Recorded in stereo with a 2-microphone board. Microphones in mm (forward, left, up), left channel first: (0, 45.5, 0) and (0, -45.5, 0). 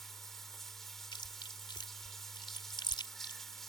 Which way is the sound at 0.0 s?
5° left (ahead or behind).